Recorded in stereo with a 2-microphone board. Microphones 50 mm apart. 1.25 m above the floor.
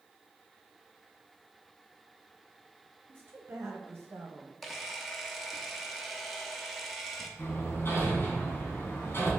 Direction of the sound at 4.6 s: Centre (ahead or behind).